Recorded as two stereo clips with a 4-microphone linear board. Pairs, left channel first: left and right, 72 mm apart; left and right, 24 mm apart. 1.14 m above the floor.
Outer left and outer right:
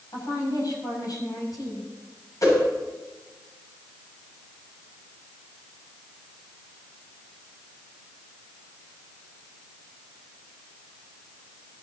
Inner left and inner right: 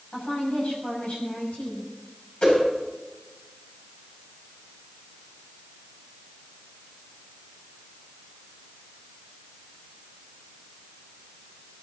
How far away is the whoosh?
About 6 m.